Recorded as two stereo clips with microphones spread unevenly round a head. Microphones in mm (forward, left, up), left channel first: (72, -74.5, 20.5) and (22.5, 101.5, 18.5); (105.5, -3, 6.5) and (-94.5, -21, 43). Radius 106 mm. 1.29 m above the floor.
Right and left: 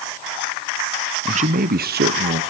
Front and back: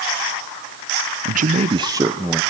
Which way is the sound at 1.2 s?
145° left.